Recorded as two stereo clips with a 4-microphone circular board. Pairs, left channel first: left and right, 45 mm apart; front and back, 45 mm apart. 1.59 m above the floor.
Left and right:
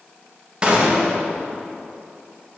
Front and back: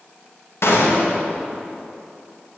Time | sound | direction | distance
0.6 | a gunshot | 20° right | 2 m